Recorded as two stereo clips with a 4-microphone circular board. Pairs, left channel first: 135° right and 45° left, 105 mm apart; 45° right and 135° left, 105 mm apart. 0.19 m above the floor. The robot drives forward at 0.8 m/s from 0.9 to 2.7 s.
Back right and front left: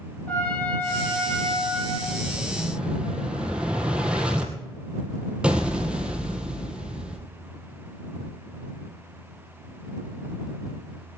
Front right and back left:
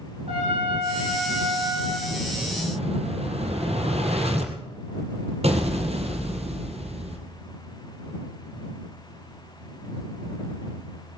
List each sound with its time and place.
0.3 s a trumpet: 150° left, 6.5 m; by 2.0 s 155° left, 7 m
2.1 s an explosion: 115° left, 2 m; by 7.2 s 125° left, 2.5 m